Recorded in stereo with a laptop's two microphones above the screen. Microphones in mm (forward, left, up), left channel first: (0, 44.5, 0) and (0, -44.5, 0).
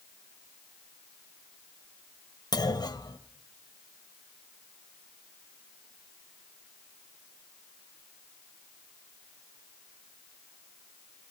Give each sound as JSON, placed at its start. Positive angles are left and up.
{"t": 2.5, "sound": "a clunk", "side_deg": 50, "distance_m": 1.2}